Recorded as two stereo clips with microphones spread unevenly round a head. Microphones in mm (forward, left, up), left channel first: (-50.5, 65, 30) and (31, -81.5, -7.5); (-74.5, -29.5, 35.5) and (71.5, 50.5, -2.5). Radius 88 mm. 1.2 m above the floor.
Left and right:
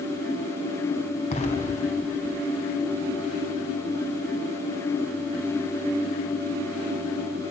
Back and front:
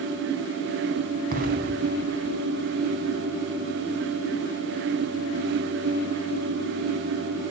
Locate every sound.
1.3 s an explosion: 70° left, 2.5 m